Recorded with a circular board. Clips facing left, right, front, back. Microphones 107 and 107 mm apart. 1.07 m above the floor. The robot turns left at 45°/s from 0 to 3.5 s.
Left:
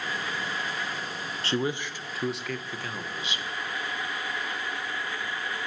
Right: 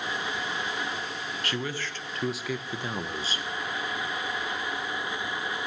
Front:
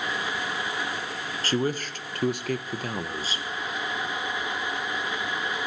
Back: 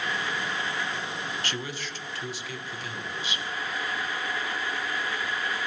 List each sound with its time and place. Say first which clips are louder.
1.4 s a man speaking: left 6 dB, front 8 dB; 40° left, 0.6 m; by 3.4 s 50° right, 0.6 m